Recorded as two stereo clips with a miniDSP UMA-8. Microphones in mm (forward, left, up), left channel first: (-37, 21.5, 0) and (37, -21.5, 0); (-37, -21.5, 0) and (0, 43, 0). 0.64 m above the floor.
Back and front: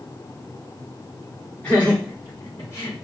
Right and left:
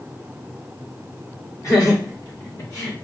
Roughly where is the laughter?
Behind right.